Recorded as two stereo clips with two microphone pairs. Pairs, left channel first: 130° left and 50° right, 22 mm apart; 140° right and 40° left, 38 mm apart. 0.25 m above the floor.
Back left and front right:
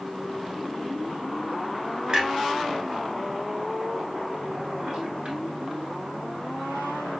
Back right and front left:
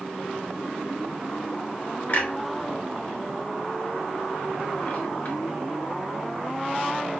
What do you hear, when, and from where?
2.1 s a clunk: 95° right, 1.0 m